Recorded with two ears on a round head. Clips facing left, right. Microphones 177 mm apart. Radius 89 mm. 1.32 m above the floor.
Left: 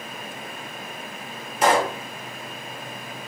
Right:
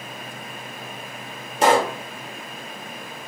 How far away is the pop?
About 0.8 m.